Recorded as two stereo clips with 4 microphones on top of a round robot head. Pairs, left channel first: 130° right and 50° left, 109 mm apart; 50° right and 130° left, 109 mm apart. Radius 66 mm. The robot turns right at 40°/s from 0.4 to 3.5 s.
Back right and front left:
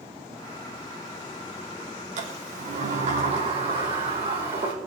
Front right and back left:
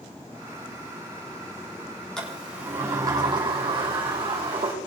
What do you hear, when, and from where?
2.2 s a sliding door: 35° left, 5 m; by 4.7 s 90° left, 5 m